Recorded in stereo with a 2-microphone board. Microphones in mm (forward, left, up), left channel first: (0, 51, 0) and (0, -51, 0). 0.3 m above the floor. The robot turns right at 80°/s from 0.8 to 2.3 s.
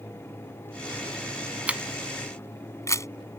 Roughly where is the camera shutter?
Centre.